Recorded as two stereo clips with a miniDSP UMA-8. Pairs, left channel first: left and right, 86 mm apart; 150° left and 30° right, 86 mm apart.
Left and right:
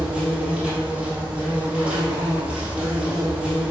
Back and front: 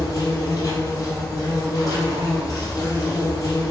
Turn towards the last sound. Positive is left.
turn(degrees=-165)